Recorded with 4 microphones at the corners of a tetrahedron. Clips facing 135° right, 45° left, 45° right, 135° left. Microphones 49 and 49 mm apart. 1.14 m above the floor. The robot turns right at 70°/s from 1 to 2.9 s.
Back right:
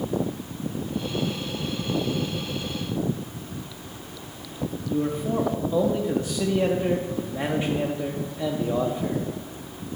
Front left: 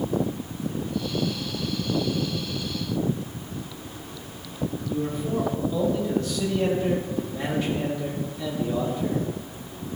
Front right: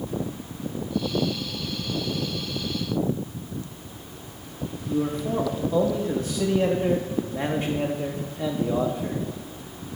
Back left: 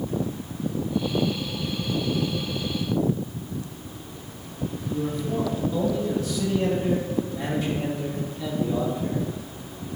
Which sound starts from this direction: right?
A man speaking, at 4.9 s.